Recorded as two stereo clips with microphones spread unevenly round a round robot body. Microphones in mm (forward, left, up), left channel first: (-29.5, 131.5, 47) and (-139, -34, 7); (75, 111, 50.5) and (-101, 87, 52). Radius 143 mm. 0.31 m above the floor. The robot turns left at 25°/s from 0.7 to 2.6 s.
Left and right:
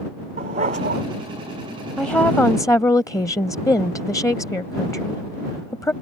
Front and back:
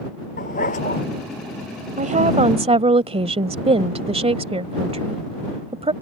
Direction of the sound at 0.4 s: 55° right.